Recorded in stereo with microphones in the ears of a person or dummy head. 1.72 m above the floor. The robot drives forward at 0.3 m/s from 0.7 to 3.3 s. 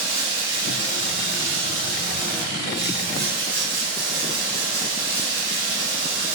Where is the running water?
20° left (ahead or behind), 0.9 m; by 6.4 s 15° left (ahead or behind), 1.1 m.